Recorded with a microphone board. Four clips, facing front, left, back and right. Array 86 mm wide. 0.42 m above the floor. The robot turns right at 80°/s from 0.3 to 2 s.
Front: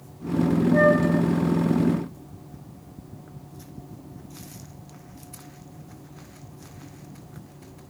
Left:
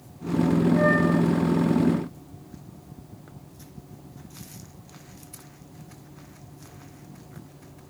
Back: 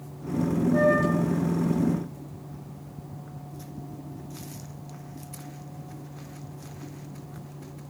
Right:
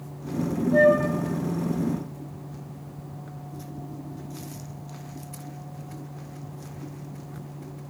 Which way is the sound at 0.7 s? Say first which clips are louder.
Right 7 dB, front 3 dB; 75° right.